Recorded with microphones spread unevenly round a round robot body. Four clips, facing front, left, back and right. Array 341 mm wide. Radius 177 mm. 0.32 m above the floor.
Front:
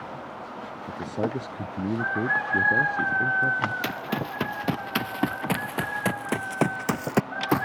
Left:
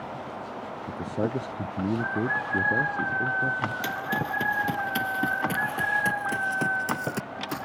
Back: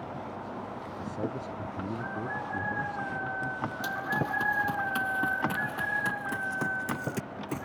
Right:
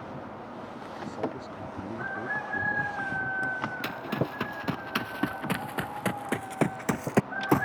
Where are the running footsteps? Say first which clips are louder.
Left 2 dB, front 1 dB; 5° left; by 7.7 s 40° right.